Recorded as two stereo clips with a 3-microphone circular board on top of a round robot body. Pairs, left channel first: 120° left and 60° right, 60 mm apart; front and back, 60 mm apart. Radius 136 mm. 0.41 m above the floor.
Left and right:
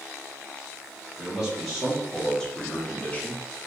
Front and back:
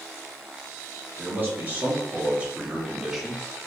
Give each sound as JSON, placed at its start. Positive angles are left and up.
{"t": 1.2, "sound": "a man speaking", "azimuth_deg": -145, "distance_m": 1.4}